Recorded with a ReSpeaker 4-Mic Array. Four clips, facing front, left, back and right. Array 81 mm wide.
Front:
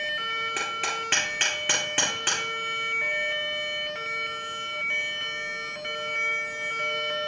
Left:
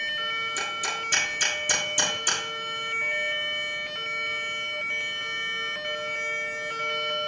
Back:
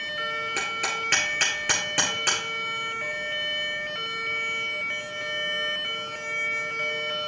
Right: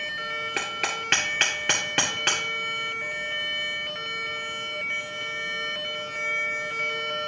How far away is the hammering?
About 2 m.